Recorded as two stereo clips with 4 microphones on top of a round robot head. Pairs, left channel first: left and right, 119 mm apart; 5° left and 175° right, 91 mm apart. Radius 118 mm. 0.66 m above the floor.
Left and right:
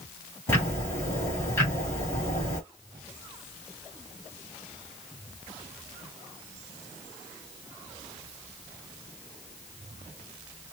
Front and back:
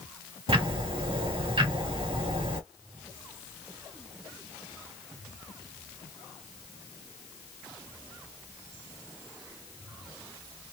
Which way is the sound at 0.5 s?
160° left.